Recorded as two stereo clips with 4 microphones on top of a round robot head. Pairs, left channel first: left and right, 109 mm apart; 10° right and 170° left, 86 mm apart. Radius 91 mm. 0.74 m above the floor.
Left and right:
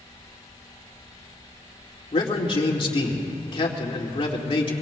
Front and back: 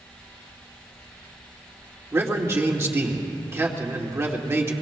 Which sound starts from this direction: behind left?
A man speaking, at 2.1 s.